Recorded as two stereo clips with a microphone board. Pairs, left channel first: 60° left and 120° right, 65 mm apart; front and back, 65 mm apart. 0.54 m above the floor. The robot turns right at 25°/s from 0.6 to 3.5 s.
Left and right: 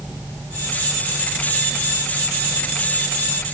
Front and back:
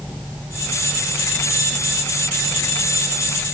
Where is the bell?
No bell in this recording.